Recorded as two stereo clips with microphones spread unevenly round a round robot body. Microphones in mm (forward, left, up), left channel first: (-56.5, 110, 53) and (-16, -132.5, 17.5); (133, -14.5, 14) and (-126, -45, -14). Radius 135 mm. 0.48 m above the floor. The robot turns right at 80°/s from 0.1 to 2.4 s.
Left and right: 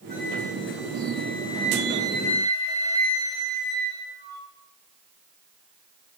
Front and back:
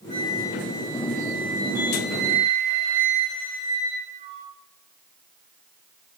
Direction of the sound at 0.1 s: 45° left.